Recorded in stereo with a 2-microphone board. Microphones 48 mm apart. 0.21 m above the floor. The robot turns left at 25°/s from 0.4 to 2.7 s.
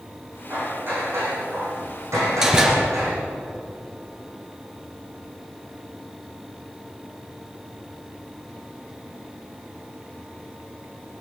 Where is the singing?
I don't hear singing.